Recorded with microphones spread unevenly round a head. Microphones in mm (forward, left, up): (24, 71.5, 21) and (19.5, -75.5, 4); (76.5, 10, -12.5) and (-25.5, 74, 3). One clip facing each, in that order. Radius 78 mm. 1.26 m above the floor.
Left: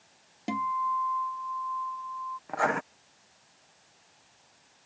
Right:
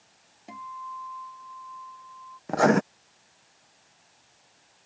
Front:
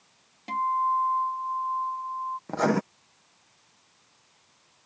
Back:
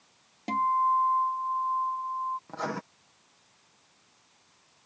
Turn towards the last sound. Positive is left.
turn(degrees=-65)